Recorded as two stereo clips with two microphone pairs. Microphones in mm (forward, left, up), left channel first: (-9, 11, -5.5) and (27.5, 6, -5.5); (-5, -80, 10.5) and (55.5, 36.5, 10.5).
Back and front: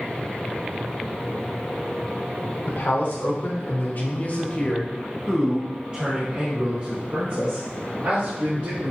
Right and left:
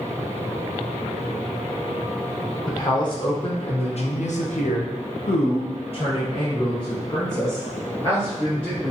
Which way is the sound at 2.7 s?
175° right.